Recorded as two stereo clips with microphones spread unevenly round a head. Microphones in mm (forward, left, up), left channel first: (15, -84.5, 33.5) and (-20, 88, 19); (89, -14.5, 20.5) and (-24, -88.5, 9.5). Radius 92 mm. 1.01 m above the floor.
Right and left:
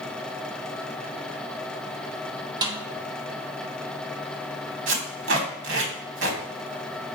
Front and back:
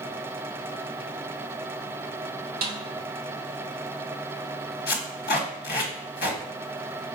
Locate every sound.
2.6 s a snare drum: 170° left, 0.9 m
4.9 s tape being pulled: 75° left, 1.3 m